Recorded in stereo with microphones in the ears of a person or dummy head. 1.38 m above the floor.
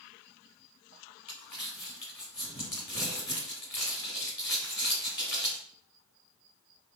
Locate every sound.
1.3 s crumpling: 5° left (ahead or behind), 1.2 m